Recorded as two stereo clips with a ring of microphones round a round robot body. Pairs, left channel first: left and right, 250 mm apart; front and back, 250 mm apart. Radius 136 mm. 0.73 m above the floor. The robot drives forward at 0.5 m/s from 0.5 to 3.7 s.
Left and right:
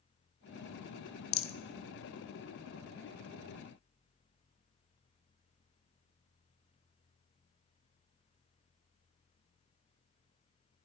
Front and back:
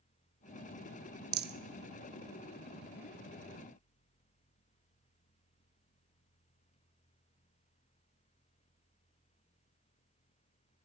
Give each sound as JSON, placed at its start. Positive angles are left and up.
{"t": 1.3, "sound": "a rattle", "azimuth_deg": 125, "distance_m": 0.7}